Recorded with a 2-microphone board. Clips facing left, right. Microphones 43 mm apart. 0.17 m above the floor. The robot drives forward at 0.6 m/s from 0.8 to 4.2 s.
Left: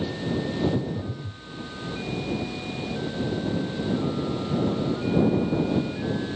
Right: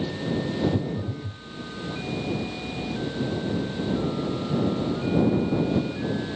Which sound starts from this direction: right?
A phone buzzing, at 0.7 s.